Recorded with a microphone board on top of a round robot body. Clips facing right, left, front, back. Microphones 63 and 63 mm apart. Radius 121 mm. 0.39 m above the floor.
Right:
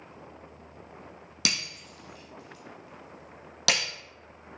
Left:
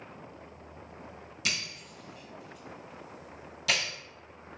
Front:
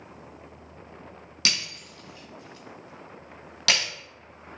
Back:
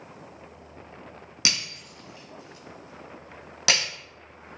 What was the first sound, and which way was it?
Breaking glass, 110° right.